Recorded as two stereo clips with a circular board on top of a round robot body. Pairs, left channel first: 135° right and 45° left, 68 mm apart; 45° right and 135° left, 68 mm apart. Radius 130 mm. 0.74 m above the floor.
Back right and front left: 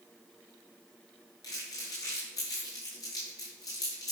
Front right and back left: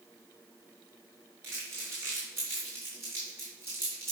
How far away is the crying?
No crying in this recording.